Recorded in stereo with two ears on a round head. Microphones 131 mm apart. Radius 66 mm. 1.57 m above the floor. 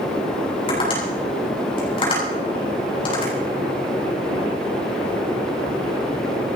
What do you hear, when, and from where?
0.7 s tapping: 35° left (ahead or behind), 9 m